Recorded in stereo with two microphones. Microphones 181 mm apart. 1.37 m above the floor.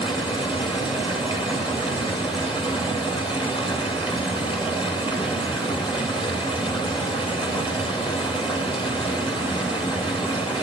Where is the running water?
30° left (ahead or behind), 2 m.